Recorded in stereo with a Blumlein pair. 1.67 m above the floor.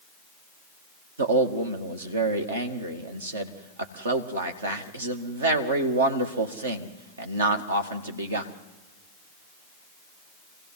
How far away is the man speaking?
About 2 m.